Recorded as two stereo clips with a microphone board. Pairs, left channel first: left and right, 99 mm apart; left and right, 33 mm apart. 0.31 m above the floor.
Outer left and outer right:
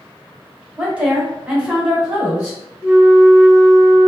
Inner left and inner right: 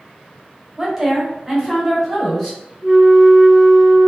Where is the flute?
20° right (ahead or behind), 0.9 m.